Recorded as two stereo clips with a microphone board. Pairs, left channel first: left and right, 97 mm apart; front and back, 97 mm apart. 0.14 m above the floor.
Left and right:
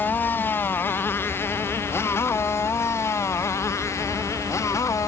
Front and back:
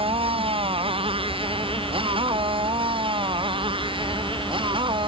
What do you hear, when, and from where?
0.0 s a motorcycle: 160° left; by 5.1 s 150° left